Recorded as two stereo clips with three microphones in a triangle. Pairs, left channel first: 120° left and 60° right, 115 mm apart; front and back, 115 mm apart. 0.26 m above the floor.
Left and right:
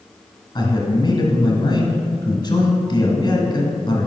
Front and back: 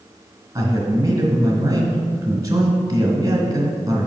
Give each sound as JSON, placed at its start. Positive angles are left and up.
{"t": 0.6, "sound": "a man speaking", "azimuth_deg": 135, "distance_m": 1.2}